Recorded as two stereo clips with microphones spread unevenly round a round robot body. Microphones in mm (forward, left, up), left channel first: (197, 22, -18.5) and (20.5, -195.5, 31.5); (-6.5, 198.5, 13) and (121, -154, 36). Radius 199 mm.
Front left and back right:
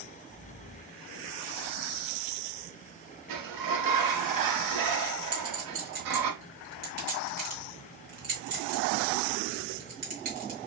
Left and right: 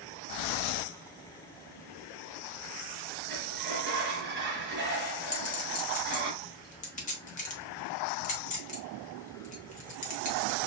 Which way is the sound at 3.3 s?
135° right.